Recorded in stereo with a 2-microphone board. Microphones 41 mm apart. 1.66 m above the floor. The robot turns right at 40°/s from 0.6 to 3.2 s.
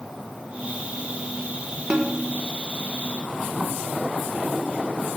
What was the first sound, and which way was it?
A snare drum, 25° right (ahead or behind).